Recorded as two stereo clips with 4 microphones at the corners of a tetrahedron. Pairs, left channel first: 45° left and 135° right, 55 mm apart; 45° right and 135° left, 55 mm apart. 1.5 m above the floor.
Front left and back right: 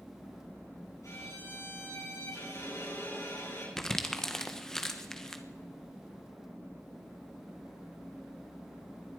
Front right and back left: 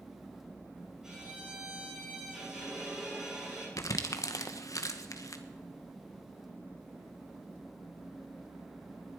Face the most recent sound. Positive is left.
turn(degrees=-35)